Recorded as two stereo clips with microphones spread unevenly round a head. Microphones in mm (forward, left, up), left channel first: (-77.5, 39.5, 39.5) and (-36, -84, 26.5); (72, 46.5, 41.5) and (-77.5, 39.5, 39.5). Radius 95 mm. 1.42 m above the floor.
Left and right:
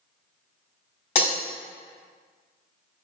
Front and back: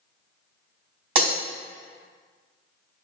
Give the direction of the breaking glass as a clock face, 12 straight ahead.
7 o'clock.